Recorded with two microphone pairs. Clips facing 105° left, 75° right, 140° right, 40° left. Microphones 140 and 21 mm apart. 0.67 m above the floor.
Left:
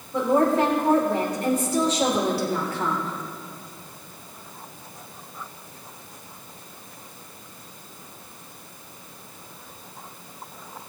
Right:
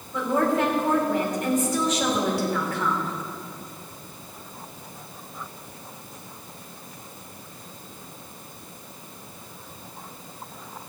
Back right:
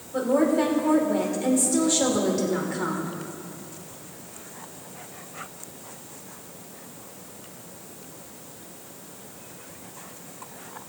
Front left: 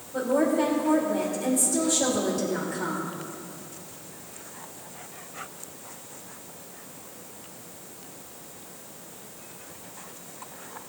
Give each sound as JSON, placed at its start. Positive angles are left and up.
{"t": 0.1, "sound": "a woman speaking", "azimuth_deg": 155, "distance_m": 2.5}